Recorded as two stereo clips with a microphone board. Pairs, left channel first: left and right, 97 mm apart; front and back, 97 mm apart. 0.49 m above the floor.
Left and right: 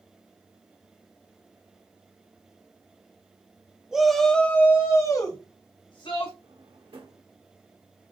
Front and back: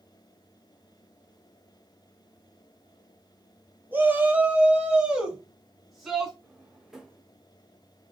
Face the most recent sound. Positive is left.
turn(degrees=-95)